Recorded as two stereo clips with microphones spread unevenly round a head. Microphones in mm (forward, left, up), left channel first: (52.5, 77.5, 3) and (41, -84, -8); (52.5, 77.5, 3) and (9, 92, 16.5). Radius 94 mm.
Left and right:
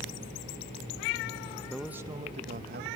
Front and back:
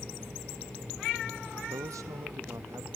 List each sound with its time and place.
1.7 s a man speaking: 170° left, 0.9 m; by 2.9 s 130° right, 1.4 m